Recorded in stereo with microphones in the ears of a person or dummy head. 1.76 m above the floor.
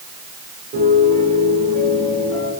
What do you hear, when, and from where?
0.7 s a piano: 40° right (ahead or behind), 9 m